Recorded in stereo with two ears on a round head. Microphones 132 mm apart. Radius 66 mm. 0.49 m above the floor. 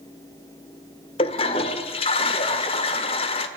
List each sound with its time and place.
1.2 s a toilet flushing: 40° left (ahead or behind), 1.3 m